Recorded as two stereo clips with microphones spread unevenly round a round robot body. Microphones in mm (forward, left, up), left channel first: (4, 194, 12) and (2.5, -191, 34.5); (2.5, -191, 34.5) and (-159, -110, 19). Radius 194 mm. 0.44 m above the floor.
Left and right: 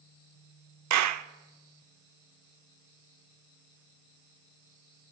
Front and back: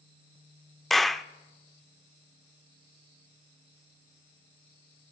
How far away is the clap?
About 0.7 m.